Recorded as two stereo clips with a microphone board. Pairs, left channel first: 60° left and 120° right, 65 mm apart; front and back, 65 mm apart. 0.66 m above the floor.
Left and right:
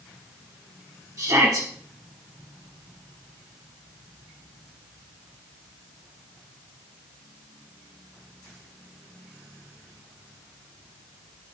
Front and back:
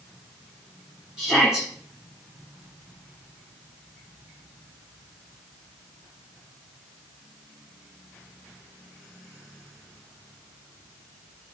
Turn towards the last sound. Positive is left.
turn(degrees=-95)